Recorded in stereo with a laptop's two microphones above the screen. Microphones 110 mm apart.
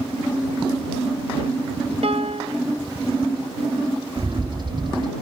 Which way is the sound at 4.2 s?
45° right (ahead or behind).